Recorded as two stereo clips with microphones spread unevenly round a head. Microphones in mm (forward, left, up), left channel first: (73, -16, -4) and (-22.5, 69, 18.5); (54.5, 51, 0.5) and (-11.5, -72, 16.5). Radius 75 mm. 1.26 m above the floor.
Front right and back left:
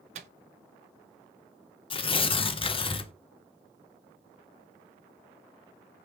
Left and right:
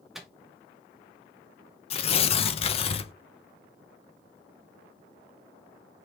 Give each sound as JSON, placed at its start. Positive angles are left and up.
{"t": 0.1, "sound": "a microwave", "azimuth_deg": 160, "distance_m": 0.5}
{"t": 1.9, "sound": "tearing paper", "azimuth_deg": 10, "distance_m": 0.6}